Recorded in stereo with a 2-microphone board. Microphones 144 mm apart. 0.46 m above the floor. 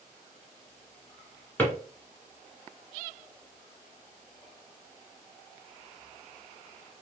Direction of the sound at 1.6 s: 10° left (ahead or behind).